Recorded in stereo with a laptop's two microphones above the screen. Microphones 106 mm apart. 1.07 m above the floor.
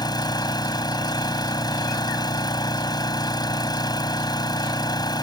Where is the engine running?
40° left (ahead or behind).